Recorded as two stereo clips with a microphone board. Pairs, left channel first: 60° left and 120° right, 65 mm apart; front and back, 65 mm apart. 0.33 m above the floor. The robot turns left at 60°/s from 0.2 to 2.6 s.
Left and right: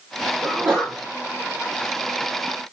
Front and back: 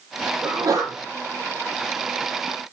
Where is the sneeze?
165° right, 9.5 m; by 0.9 s 165° left, 9.5 m.